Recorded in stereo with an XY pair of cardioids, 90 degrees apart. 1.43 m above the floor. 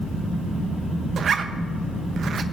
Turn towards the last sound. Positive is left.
turn(degrees=-60)